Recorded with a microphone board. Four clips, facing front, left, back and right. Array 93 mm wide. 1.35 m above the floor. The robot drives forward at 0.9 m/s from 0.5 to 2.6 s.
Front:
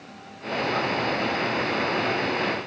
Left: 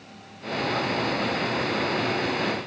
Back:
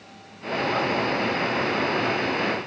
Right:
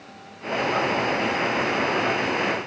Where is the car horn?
I don't hear a car horn.